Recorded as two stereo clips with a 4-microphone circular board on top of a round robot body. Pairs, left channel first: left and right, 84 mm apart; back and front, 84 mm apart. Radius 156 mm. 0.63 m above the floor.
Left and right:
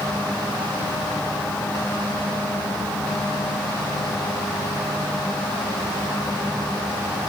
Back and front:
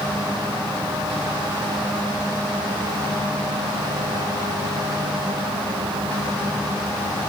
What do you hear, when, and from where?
Only background noise.